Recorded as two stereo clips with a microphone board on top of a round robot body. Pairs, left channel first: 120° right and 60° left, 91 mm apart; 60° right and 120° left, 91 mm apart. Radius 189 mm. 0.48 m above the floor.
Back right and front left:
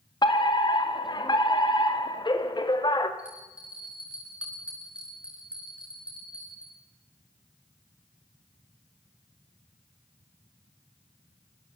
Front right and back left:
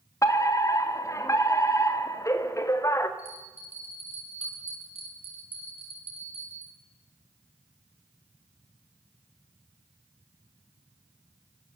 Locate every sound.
0.2 s a fire alarm: 110° right, 2.5 m
3.2 s a bell: 140° left, 7.5 m